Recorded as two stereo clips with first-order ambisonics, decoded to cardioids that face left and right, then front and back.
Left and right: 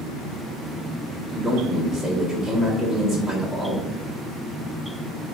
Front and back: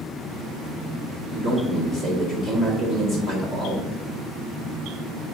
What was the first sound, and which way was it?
A man speaking, 15° right.